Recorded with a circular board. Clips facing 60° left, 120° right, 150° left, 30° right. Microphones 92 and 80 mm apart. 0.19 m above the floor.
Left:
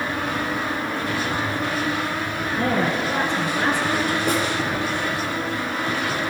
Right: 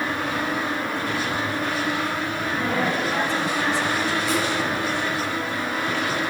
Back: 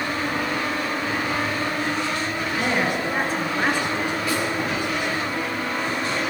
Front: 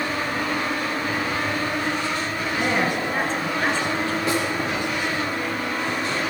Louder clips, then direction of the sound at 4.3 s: Left 2 dB, front 2 dB; 25° left.